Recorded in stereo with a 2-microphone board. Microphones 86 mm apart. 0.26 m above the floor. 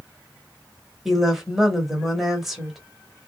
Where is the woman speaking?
Centre (ahead or behind), 0.9 m.